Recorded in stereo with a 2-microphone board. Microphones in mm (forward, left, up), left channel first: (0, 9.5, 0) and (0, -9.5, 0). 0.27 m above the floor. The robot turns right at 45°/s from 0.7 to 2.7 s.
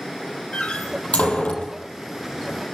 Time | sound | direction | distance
0.5 | a door slam | 75° left (ahead or behind) | 6 m